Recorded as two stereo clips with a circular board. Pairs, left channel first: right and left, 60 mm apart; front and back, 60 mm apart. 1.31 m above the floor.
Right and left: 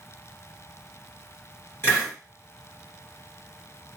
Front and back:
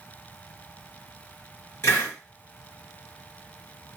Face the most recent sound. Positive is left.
turn(degrees=-45)